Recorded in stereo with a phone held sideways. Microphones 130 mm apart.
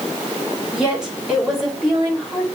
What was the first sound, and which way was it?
A woman speaking, 5° right (ahead or behind).